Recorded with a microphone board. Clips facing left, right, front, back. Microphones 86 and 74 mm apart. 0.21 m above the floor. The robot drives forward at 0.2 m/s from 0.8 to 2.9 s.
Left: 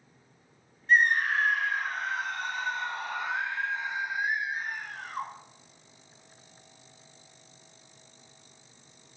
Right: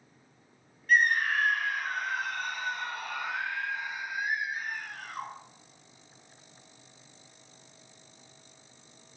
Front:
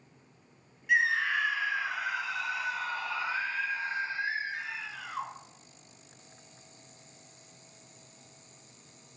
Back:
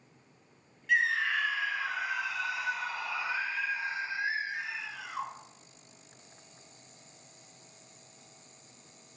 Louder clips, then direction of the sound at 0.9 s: Left 1 dB, front 1 dB; 60° left.